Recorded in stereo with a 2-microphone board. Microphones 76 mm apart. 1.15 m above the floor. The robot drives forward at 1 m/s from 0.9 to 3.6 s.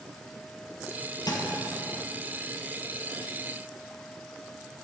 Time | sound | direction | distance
1.3 | a thud | 60° left (ahead or behind) | 2 m